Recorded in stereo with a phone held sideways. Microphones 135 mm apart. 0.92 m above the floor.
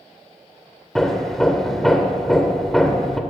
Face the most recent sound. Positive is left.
turn(degrees=0)  # may be behind; listen again after turning